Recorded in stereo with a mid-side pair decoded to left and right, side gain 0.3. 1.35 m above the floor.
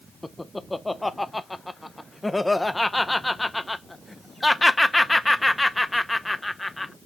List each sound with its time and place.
0.2 s laughter: 20° left, 0.6 m